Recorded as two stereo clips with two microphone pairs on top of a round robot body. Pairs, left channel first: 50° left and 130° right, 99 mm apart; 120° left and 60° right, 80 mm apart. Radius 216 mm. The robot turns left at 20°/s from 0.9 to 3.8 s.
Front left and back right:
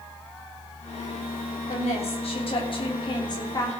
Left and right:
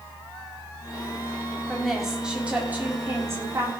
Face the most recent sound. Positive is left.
turn(degrees=-10)